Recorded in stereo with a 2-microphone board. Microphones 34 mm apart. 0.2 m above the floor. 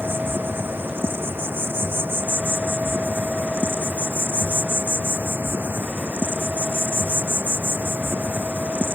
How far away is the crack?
I don't hear a crack.